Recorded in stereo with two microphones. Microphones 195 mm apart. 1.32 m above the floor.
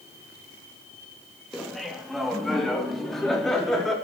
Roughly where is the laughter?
Centre.